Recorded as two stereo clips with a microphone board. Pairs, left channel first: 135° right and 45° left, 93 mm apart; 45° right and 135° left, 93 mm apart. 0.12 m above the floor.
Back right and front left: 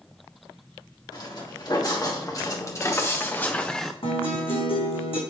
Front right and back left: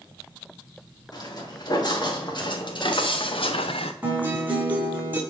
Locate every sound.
1.1 s footsteps: 95° right, 1.8 m; by 3.9 s 45° right, 0.7 m
4.0 s a guitar: 155° right, 1.8 m